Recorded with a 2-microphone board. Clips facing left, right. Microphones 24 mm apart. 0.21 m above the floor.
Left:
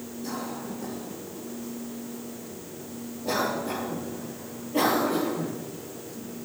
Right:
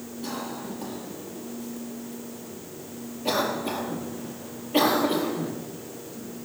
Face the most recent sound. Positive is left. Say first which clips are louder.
# right 1 dB
turn(degrees=-80)